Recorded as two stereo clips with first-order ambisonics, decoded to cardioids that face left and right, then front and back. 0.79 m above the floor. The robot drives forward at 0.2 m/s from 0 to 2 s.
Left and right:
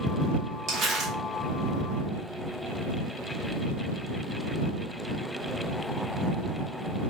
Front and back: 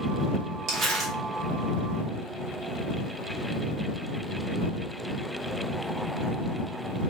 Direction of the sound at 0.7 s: 135° right.